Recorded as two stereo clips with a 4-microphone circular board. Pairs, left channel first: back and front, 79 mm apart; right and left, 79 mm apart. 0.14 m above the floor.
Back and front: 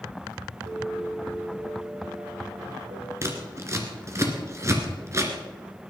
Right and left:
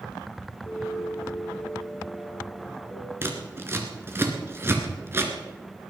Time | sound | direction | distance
0.7 | a piano | 15° right | 3.5 m
3.2 | scissors | 40° left | 2 m